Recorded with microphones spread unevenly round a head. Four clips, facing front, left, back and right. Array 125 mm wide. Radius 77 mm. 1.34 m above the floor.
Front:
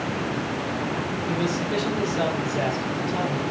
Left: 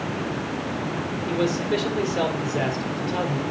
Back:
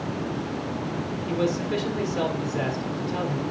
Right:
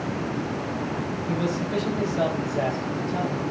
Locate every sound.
1.3 s a man speaking: 75° left, 4.5 m